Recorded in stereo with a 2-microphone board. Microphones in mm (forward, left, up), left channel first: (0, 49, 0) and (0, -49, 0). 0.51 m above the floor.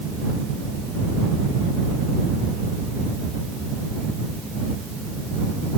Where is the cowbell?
I don't hear a cowbell.